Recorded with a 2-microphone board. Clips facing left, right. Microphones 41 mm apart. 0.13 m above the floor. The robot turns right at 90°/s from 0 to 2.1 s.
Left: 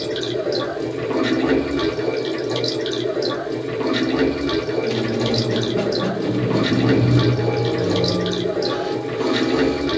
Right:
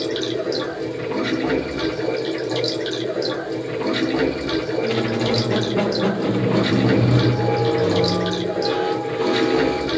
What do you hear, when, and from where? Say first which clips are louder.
0.0 s running water: even; 35° right, 1.9 m; by 10.0 s 155° left, 1.9 m
4.8 s a squeak: even; 25° right (ahead or behind), 0.6 m